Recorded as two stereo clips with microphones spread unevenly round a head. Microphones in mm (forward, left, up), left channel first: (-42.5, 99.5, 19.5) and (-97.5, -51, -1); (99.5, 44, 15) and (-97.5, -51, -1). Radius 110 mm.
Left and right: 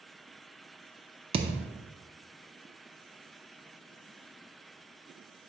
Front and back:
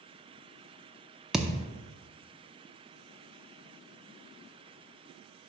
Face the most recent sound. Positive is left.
turn(degrees=-60)